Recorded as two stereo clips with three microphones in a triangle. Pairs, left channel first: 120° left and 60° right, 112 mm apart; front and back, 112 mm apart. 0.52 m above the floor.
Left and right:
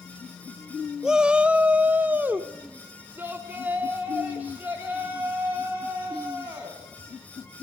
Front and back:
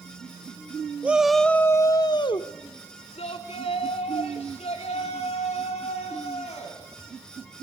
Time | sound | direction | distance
1.0 | a shout | 135° right | 0.7 m